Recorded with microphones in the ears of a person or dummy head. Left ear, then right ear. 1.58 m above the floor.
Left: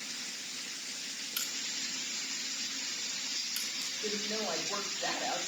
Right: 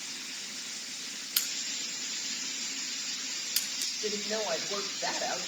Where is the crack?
25° right (ahead or behind), 1.6 m.